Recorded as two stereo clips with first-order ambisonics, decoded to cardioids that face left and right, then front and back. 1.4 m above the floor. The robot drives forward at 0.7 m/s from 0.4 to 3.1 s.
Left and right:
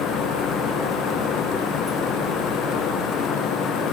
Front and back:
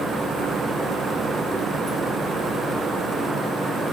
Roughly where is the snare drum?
No snare drum in this recording.